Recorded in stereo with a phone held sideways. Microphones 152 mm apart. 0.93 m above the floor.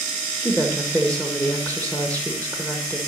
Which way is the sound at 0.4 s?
5° left (ahead or behind).